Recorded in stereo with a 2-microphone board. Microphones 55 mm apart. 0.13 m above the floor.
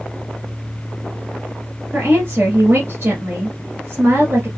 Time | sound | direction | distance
1.9 | a woman speaking | 45° right (ahead or behind) | 2.0 m